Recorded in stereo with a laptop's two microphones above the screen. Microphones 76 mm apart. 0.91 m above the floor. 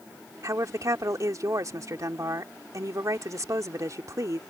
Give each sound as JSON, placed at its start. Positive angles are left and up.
{"t": 0.4, "sound": "a woman speaking", "side_deg": -50}